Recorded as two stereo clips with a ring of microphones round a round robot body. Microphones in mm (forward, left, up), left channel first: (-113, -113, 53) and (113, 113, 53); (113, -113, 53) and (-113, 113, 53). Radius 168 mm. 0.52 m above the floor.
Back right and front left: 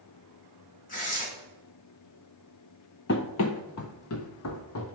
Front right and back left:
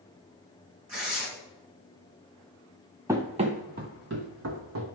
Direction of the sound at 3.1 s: 150° right.